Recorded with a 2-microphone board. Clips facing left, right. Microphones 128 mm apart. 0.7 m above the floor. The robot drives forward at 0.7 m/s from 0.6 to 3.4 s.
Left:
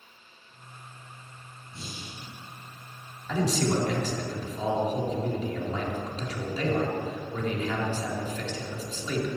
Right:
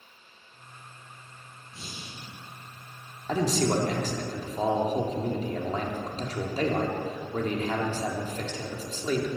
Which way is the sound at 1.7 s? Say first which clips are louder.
Left 2 dB; centre (ahead or behind).